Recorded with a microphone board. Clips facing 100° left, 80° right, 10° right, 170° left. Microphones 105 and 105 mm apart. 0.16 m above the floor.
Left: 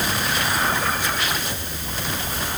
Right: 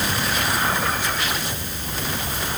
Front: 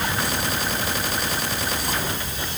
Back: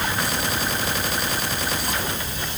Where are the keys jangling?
I don't hear keys jangling.